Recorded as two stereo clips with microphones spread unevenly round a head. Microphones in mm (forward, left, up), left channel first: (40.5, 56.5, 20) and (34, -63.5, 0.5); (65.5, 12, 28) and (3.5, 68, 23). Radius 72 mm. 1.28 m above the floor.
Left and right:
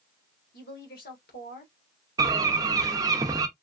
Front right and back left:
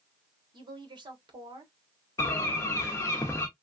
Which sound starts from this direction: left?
A woman speaking, at 0.5 s.